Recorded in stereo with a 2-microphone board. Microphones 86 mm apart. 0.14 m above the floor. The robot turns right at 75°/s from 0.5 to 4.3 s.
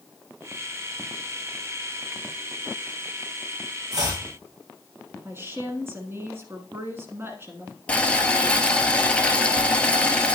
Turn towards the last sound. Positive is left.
turn(degrees=15)  # may be behind; listen again after turning